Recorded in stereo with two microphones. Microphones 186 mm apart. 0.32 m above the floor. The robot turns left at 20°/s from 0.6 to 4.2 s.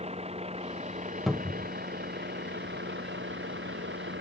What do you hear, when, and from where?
0.0 s a vehicle: 35° right (ahead or behind); by 4.2 s 80° right
1.3 s a cupboard door: centre (ahead or behind); by 1.7 s 5° right (ahead or behind)